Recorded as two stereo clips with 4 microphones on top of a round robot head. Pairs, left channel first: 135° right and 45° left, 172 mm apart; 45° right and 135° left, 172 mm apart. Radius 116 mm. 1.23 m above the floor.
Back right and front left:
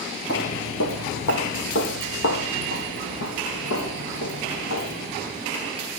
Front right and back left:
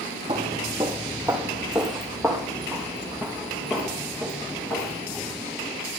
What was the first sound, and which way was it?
Footsteps, 160° right.